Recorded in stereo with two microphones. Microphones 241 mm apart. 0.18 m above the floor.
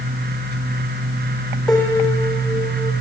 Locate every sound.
1.7 s a piano: 5° left (ahead or behind), 4 m